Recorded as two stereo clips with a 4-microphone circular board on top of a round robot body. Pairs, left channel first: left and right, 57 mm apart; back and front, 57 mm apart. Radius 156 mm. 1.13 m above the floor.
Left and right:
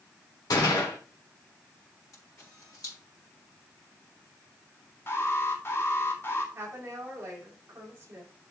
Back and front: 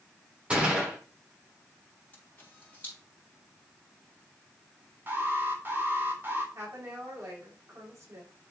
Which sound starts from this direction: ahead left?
An alarm, at 5.1 s.